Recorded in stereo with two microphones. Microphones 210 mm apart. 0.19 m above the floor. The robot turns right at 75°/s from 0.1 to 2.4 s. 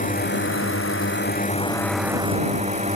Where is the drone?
40° left; by 3.0 s 145° right.